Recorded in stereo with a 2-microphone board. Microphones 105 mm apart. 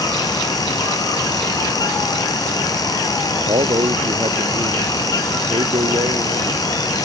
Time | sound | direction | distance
3.5 | a man speaking | 60° right (ahead or behind) | ?